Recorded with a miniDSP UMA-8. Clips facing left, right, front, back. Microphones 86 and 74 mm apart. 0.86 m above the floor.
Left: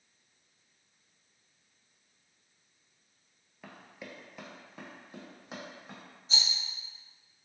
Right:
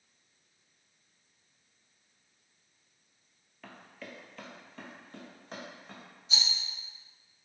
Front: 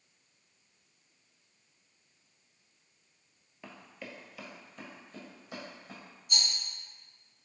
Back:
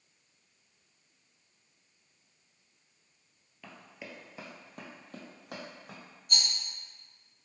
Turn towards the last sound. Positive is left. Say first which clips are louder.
# even, back 1 dB
turn(degrees=145)